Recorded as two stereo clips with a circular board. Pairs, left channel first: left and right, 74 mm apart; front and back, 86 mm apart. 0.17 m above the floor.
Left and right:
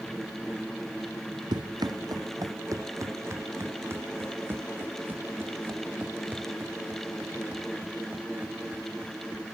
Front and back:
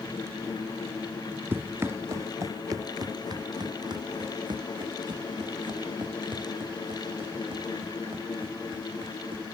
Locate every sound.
1.5 s running footsteps: 110° right; by 9.4 s 165° right